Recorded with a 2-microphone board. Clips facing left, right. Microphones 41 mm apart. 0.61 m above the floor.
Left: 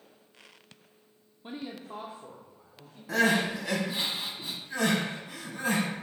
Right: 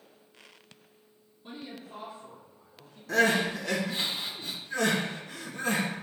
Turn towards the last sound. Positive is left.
turn(degrees=15)  # may be behind; listen again after turning